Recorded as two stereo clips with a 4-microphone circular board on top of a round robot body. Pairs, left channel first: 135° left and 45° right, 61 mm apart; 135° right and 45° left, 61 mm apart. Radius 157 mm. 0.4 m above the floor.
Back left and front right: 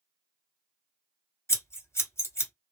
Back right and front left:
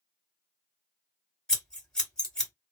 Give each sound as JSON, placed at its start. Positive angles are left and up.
{"t": 1.5, "sound": "scissors", "azimuth_deg": 150, "distance_m": 1.9}